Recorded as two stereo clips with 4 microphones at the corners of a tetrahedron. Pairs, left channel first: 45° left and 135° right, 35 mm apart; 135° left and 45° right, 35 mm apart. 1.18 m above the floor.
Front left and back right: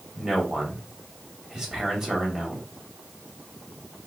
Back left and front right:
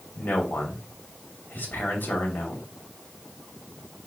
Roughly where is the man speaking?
Behind left.